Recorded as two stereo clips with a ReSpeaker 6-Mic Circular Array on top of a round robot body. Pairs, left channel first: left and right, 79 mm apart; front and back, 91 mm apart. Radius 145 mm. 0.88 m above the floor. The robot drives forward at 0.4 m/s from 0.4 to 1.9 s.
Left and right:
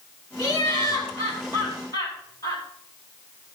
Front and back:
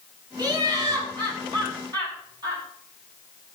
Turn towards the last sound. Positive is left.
turn(degrees=135)